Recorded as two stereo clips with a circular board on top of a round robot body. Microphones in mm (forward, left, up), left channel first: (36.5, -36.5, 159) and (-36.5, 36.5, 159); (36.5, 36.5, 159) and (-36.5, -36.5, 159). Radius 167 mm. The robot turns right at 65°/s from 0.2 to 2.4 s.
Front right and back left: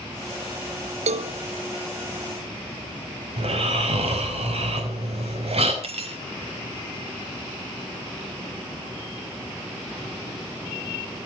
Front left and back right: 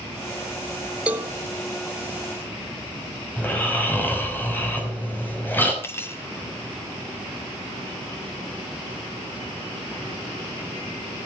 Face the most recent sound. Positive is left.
turn(degrees=115)